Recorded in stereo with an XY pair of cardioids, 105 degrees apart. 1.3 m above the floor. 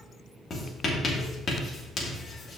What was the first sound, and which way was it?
Writing, 45° left.